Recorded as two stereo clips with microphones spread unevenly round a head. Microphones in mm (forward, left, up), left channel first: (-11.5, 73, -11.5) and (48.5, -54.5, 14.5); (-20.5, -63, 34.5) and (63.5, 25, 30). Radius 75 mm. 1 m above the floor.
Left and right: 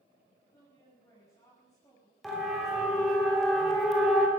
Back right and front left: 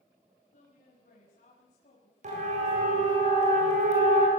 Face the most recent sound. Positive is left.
turn(degrees=25)